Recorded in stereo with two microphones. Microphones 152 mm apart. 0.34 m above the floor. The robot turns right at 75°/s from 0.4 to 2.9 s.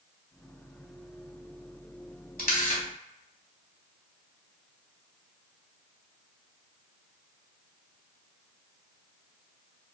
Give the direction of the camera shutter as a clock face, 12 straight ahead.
9 o'clock.